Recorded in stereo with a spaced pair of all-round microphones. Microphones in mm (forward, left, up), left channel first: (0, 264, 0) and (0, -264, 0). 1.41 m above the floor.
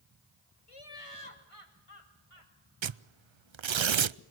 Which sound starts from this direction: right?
Tearing paper, at 2.8 s.